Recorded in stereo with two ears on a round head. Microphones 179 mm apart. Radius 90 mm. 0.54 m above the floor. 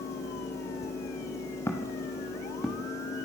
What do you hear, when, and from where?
1.7 s footsteps: 10° left (ahead or behind), 4 m; by 2.9 s centre (ahead or behind), 5 m